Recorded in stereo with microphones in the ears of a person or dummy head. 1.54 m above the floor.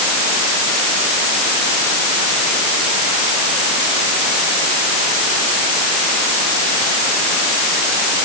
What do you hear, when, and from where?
Only background noise.